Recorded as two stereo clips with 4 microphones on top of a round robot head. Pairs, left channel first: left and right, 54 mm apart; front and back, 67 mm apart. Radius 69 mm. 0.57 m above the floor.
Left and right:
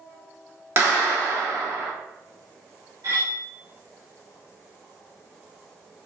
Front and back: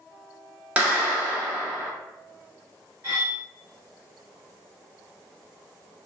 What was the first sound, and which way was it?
A clap, 115° right.